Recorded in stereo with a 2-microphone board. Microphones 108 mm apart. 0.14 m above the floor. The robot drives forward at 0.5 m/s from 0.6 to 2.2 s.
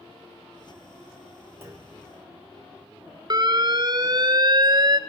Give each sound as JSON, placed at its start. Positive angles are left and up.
{"t": 1.6, "sound": "a clunk", "side_deg": -20, "distance_m": 4.0}
{"t": 3.3, "sound": "an alarm", "side_deg": -40, "distance_m": 1.0}